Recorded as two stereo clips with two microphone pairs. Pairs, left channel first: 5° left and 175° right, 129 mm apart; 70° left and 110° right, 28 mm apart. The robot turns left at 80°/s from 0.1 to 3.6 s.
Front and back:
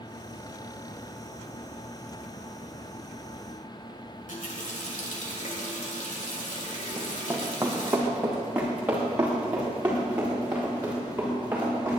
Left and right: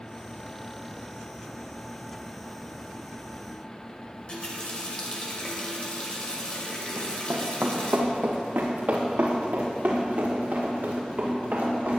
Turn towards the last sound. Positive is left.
turn(degrees=-100)